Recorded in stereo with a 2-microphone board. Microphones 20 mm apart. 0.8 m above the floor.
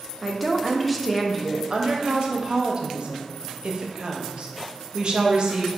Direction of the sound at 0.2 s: Centre (ahead or behind).